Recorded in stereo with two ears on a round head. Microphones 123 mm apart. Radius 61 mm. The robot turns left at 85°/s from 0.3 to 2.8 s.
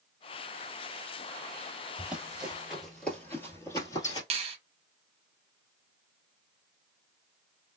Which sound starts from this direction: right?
A finger snap, at 4.3 s.